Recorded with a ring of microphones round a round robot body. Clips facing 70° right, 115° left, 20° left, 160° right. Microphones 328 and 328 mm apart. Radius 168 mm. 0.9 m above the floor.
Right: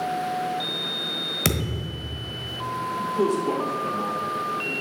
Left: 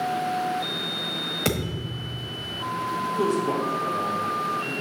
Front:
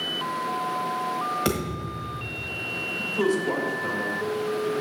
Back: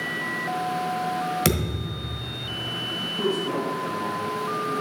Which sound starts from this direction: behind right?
A thud, at 1.4 s.